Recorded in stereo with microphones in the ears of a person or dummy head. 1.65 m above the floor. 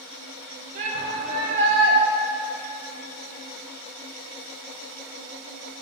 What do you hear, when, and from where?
0.8 s a shout: 50° right (ahead or behind), 3.5 m